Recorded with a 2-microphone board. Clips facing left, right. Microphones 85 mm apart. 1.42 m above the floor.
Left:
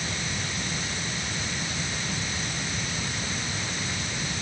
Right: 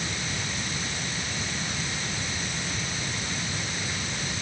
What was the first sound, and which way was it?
Only background noise.